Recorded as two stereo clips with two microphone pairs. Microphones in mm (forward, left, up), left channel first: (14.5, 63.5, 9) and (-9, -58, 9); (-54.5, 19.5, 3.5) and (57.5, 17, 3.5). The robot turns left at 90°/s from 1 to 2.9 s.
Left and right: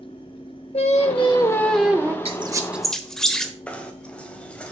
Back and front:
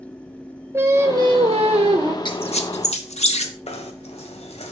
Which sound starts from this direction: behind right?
A squeak, at 2.2 s.